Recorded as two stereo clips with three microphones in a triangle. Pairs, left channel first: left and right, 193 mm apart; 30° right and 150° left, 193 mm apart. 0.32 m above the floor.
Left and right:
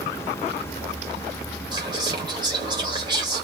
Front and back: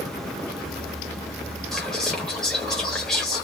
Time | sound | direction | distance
1.7 | whispering | 115° right | 0.9 m